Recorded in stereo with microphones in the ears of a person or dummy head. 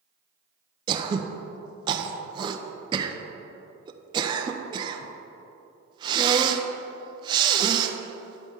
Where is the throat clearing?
25° right (ahead or behind), 0.7 m.